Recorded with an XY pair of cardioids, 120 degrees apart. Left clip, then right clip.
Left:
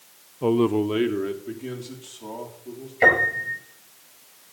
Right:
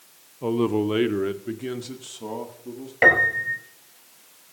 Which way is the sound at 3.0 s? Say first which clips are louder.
Right 1 dB; 15° right.